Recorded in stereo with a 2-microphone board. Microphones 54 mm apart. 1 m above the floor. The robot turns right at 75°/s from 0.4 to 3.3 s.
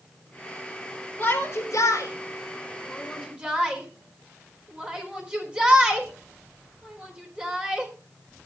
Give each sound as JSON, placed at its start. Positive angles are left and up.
{"t": 1.2, "sound": "a shout", "side_deg": 40, "distance_m": 4.0}